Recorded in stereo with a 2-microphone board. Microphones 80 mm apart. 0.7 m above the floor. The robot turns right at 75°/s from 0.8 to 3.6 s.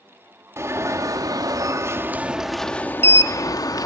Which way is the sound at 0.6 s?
130° right.